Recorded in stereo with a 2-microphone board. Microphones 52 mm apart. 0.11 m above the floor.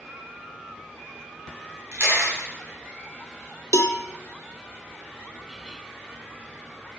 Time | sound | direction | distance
1.9 | a camera shutter | 45° right (ahead or behind) | 6.5 m
3.7 | a cowbell | 75° left (ahead or behind) | 0.7 m